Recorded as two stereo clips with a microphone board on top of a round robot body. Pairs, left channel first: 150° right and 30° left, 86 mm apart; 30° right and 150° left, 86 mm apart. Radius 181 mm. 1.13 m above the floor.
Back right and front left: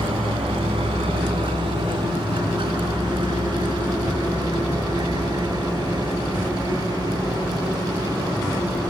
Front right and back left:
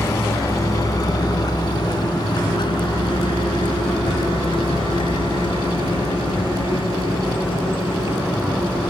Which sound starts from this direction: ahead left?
A vehicle, at 0.0 s.